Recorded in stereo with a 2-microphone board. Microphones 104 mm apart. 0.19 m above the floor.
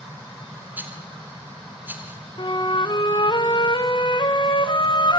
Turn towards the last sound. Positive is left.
turn(degrees=50)  # may be behind; listen again after turning